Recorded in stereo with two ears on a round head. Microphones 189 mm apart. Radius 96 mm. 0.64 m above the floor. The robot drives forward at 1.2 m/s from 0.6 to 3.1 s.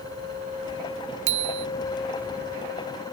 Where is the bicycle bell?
65° right (ahead or behind); by 1.7 s 60° right (ahead or behind).